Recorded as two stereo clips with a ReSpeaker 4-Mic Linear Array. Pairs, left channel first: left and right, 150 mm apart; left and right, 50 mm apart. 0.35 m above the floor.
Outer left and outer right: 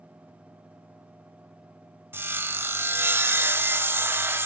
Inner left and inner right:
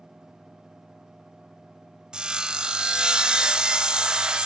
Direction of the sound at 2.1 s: 15° right (ahead or behind).